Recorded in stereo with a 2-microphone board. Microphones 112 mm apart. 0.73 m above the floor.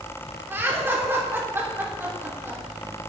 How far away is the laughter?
About 2.5 m.